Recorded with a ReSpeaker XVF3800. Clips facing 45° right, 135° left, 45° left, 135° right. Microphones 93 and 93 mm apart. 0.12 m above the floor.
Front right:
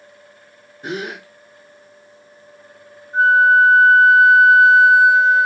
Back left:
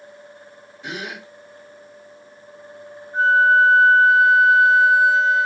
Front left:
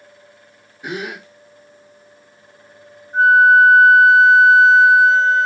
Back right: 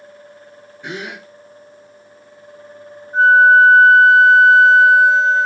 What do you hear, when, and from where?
0.8 s a gasp: 30° right, 0.8 m
3.1 s a flute: 60° right, 3 m